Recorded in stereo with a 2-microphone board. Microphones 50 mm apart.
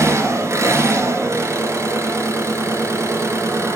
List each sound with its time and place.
0.0 s an engine running: 75° right (ahead or behind), 2.5 m